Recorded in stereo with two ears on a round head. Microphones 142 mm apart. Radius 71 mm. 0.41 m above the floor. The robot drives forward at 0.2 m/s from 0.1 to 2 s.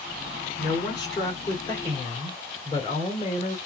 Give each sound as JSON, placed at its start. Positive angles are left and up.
{"t": 0.6, "sound": "a woman speaking", "side_deg": 25, "distance_m": 1.7}